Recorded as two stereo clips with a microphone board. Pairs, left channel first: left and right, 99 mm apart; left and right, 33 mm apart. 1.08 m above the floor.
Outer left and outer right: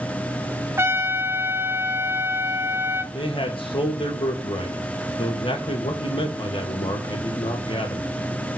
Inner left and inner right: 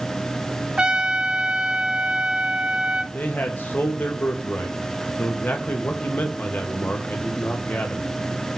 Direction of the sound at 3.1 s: 65° left (ahead or behind).